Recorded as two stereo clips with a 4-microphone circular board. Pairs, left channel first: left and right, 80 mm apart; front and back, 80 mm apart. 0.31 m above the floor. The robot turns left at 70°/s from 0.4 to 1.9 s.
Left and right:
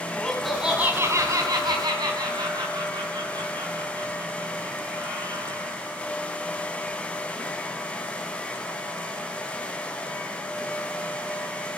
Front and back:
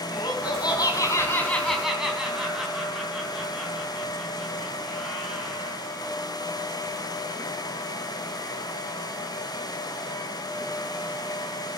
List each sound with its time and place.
0.1 s laughter: 5° left, 2.5 m; by 5.8 s 100° right, 2.5 m